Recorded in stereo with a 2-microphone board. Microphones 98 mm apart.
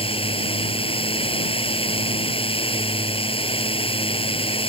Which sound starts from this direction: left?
A drone, at 0.0 s.